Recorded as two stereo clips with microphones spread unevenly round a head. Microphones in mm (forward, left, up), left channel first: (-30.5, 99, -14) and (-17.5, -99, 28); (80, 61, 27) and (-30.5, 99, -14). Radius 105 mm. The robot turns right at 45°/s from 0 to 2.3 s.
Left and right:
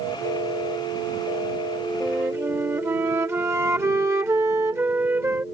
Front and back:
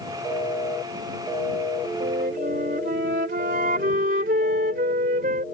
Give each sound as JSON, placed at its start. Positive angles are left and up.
{"t": 2.0, "sound": "a flute", "azimuth_deg": -170}